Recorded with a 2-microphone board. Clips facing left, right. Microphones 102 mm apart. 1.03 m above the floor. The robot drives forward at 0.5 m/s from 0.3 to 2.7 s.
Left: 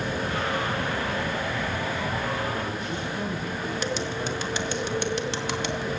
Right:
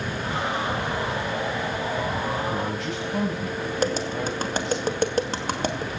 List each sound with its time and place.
2.5 s a man speaking: 85° right, 5.5 m; by 4.8 s 90° right, 5.5 m
3.8 s tapping: 40° right (ahead or behind), 2.5 m